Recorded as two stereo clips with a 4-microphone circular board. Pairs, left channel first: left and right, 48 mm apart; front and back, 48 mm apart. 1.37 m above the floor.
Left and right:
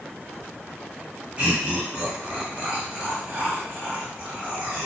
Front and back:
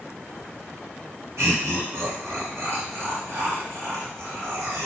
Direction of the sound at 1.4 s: 155° right.